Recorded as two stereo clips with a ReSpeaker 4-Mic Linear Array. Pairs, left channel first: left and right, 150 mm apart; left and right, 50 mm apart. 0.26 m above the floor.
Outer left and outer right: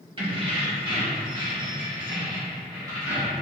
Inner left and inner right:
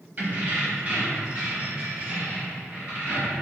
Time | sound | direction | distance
0.2 | keys jangling | 40° right (ahead or behind) | 0.9 m